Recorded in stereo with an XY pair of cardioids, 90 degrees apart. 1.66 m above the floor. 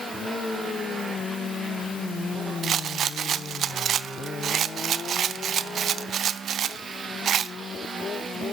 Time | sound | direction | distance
2.6 | a rattle | 70° right | 0.5 m